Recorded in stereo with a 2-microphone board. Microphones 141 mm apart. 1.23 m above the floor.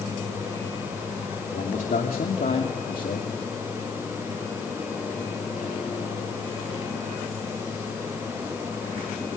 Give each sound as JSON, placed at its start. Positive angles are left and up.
{"t": 1.5, "sound": "a man speaking", "side_deg": 90, "distance_m": 3.0}